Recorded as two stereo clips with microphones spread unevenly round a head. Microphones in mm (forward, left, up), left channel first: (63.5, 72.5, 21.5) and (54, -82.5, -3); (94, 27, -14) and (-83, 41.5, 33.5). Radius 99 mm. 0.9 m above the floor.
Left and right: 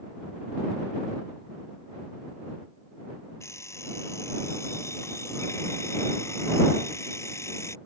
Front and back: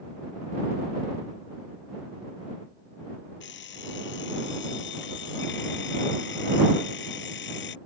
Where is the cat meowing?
No cat meowing in this recording.